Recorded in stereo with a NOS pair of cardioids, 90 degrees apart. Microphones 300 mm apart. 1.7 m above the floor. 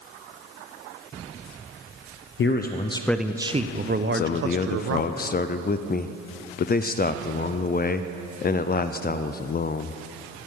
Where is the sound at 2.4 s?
45° left, 0.8 m; by 5.1 s 60° right, 1.6 m.